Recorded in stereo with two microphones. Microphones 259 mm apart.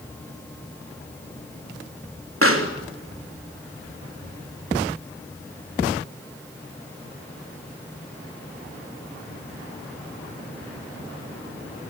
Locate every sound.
2.4 s a pop: 55° right (ahead or behind), 3.5 m